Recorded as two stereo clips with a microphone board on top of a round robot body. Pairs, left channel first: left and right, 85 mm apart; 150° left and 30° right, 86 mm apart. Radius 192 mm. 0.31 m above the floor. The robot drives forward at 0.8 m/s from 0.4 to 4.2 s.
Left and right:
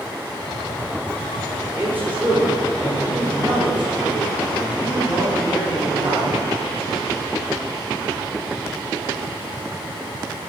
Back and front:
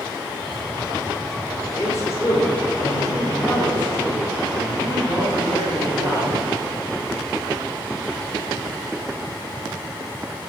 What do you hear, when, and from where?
1.8 s a man speaking: 155° right, 1.6 m; by 6.4 s 170° right, 3.5 m